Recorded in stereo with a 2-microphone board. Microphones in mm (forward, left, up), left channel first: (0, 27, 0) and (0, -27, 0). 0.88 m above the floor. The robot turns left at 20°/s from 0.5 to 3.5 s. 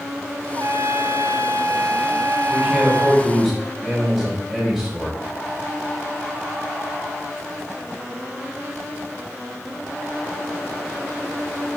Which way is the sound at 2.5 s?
25° right (ahead or behind).